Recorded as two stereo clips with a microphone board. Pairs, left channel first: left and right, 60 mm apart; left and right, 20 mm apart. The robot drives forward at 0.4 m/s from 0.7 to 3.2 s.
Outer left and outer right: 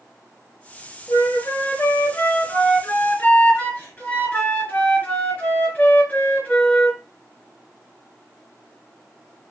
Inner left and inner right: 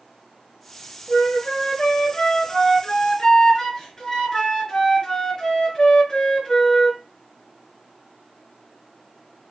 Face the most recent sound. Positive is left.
turn(degrees=25)  # may be behind; listen again after turning